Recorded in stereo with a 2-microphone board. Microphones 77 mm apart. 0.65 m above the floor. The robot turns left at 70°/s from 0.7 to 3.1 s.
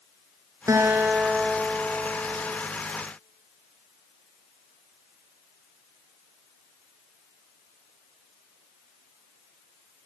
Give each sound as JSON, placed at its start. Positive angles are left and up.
{"t": 0.7, "sound": "a guitar", "azimuth_deg": -135, "distance_m": 3.5}